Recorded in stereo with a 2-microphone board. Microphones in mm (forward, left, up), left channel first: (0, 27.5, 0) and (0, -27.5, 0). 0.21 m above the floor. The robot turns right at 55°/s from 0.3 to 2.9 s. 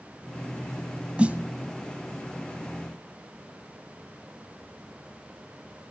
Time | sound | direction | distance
1.2 | a snare drum | 20° right (ahead or behind) | 0.6 m